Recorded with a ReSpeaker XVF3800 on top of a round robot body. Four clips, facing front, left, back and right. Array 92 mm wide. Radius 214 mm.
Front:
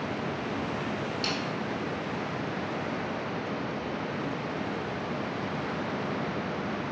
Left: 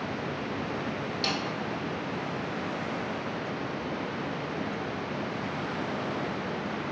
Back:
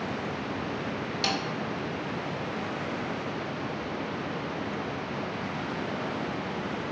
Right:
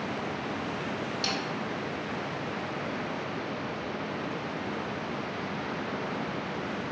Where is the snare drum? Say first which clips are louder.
Left 2 dB, back 6 dB; 170° right, 1.9 m.